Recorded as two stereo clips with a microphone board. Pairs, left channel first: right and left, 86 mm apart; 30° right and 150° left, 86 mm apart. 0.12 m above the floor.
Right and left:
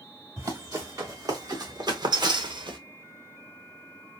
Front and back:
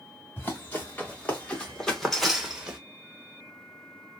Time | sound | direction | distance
0.4 | running footsteps | 40° left | 3 m